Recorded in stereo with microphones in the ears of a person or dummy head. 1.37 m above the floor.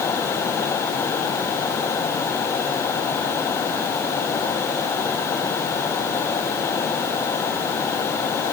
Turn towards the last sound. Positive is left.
No sound to turn to.